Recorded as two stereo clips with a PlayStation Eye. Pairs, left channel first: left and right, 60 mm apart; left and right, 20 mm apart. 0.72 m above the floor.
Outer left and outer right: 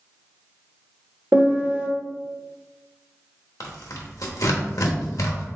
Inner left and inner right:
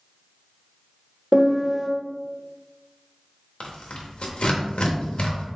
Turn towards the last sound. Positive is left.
turn(degrees=80)